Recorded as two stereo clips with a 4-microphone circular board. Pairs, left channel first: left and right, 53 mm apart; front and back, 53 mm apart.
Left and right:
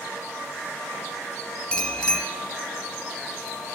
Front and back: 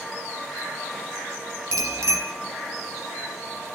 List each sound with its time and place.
1.7 s a bicycle bell: 160° left, 3 m